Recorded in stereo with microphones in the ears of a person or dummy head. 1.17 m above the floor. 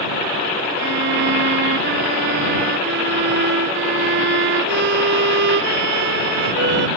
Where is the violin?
60° right (ahead or behind).